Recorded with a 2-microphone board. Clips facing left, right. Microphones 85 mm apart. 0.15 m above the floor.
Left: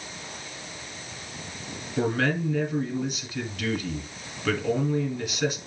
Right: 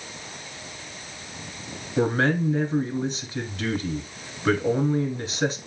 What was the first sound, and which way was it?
A man speaking, 30° right (ahead or behind).